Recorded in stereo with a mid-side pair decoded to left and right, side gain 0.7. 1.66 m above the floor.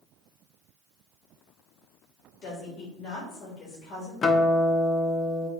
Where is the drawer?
No drawer in this recording.